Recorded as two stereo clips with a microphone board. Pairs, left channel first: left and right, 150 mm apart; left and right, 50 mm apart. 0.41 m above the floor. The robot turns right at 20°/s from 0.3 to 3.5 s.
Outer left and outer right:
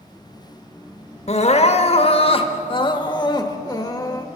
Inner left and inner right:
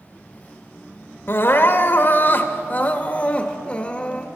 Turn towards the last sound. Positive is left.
turn(degrees=145)